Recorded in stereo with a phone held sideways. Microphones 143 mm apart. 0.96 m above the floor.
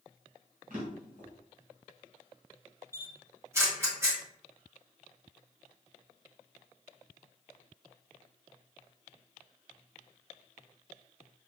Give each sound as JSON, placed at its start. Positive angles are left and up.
{"t": 0.7, "sound": "a drawer", "side_deg": -80, "distance_m": 2.5}
{"t": 2.9, "sound": "a camera shutter", "side_deg": -20, "distance_m": 1.6}